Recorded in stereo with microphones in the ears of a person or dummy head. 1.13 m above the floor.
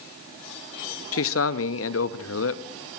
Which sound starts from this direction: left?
A man speaking, at 1.1 s.